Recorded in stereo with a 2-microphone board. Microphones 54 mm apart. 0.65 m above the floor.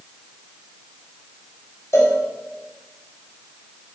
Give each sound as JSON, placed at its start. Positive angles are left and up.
{"t": 1.9, "sound": "a cowbell", "side_deg": 55, "distance_m": 4.5}